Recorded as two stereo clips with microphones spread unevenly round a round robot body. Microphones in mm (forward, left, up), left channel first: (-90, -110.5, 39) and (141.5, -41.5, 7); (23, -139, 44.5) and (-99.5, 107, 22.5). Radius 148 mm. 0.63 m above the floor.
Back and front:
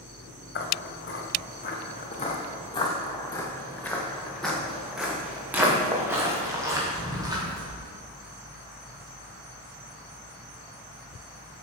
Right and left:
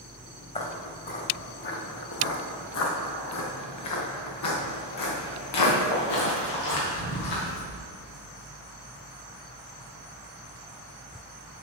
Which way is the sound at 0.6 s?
130° right.